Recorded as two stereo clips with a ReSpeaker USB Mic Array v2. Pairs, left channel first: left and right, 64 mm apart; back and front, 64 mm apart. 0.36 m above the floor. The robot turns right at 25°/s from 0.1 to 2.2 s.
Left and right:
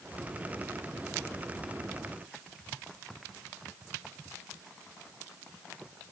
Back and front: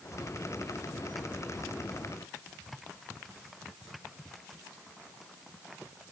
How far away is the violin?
No violin in this recording.